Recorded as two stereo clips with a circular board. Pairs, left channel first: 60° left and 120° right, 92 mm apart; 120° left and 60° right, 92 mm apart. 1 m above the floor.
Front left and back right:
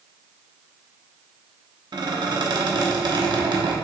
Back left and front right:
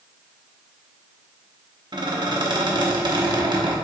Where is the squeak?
90° right, 0.8 m.